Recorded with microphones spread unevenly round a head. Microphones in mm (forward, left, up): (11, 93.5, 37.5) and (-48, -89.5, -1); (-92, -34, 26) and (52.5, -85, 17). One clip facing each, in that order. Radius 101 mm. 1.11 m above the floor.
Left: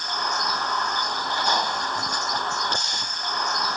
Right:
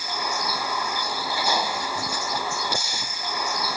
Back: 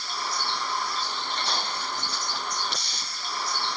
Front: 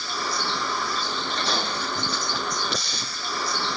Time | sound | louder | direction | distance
0.0 | a vehicle | right 1 dB, front 3 dB | 25° right | ?